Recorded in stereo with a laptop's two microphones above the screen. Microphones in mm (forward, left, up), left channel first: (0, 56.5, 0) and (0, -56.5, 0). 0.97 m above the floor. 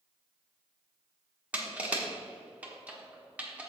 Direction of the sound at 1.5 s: 10° right (ahead or behind).